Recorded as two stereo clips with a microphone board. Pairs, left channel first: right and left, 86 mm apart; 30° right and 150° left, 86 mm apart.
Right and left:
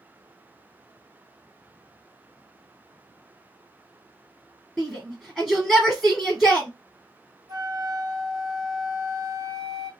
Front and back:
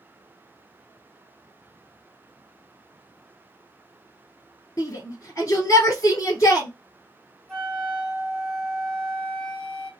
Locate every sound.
4.8 s a shout: straight ahead, 2 m
7.5 s a flute: 55° left, 1.5 m